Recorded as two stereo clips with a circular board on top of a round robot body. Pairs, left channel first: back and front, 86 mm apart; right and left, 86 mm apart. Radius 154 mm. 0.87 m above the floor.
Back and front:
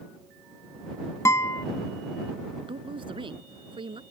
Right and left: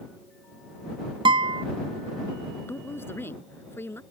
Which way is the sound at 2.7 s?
25° right.